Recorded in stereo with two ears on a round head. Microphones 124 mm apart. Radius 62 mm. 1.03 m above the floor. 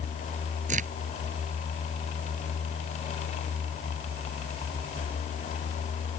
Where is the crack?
55° right (ahead or behind).